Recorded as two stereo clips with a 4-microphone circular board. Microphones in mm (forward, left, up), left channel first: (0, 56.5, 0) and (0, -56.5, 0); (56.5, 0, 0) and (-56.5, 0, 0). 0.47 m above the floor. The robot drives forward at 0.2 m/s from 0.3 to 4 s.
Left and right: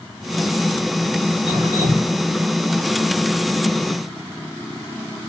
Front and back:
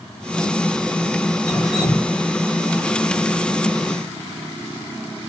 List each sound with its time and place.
1.5 s dripping: 90° right, 1.9 m; by 2.1 s 95° right, 1.9 m